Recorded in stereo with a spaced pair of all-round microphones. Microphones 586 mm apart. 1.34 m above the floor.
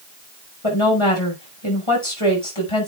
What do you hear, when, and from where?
0.6 s a woman speaking: 55° left (ahead or behind), 6 m